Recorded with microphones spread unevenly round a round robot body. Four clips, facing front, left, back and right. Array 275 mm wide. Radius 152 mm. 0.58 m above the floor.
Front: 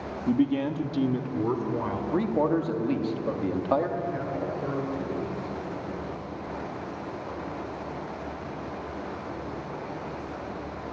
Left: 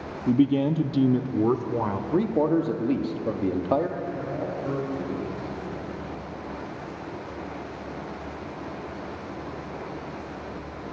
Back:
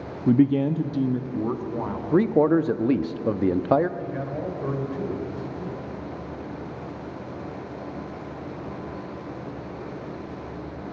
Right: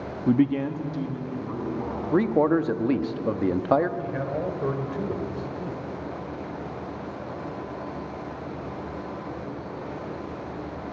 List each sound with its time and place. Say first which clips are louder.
0.3 s a man speaking: left 1 dB, back 5 dB; 155° right, 0.8 m; by 2.0 s 90° left, 2 m
2.1 s a man speaking: right 2 dB, back 7 dB; 170° right, 1.1 m
4.0 s a man speaking: right 2 dB, even; 120° right, 2.5 m